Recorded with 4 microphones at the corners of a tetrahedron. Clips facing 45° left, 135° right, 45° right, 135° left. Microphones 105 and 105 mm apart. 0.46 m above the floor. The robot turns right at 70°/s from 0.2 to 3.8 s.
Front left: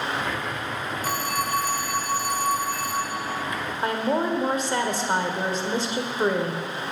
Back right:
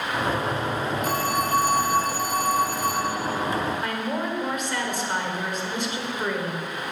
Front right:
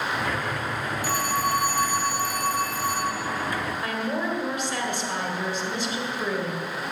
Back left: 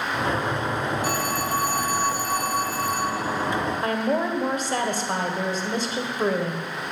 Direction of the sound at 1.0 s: 100° left.